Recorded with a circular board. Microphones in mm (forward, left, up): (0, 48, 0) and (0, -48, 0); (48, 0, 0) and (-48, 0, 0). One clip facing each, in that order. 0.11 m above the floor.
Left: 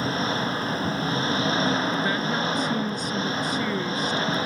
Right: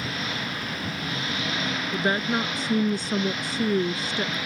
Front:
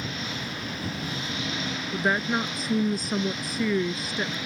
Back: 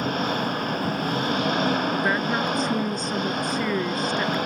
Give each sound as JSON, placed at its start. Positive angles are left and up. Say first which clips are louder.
{"t": 0.0, "sound": "an engine running", "louder": "left 6 dB, back 10 dB", "azimuth_deg": 145}
{"t": 1.9, "sound": "a woman speaking", "louder": "even, back 2 dB", "azimuth_deg": -85}